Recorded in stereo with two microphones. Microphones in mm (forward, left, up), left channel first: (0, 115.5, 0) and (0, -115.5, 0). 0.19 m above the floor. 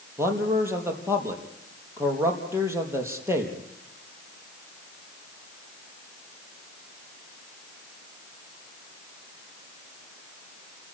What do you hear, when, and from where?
0.2 s a man speaking: 10° right (ahead or behind), 4.5 m